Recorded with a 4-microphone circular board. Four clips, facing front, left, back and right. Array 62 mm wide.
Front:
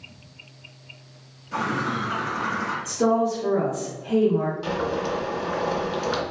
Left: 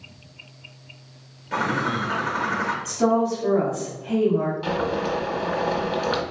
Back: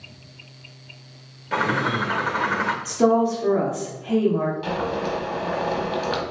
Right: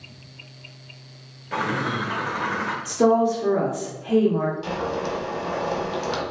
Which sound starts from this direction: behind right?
A woman speaking, at 2.9 s.